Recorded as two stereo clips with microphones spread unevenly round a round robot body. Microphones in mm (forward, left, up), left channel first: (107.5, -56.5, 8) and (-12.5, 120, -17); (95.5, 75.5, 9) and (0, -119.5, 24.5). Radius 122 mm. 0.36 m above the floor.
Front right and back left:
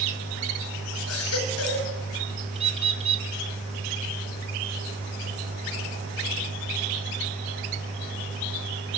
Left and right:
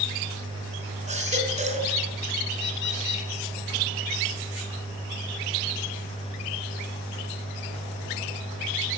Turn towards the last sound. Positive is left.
turn(degrees=70)